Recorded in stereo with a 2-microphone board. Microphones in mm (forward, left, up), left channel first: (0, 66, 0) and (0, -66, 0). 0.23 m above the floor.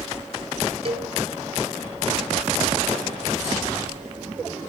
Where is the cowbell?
45° right (ahead or behind), 0.9 m.